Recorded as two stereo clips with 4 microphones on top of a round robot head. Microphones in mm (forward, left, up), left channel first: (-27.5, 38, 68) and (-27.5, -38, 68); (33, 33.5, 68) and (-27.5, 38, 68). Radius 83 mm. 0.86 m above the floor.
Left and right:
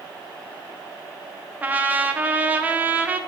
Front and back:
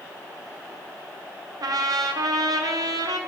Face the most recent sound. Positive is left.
turn(degrees=-160)